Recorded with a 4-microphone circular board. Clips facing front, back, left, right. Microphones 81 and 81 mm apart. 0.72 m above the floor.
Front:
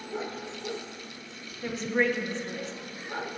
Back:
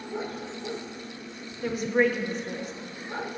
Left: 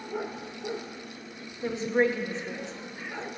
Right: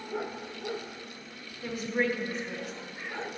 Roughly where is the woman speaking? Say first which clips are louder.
Back 3 dB, left 5 dB; left.